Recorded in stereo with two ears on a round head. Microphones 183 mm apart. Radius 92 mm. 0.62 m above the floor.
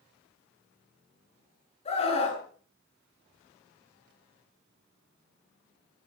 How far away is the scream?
About 7.5 m.